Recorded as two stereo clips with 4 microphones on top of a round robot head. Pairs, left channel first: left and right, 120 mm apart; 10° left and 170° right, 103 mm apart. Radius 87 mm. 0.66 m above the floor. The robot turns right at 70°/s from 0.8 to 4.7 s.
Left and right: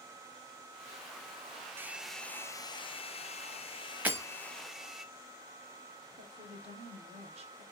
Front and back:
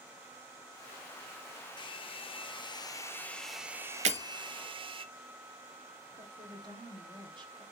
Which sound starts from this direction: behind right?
A woman speaking, at 6.2 s.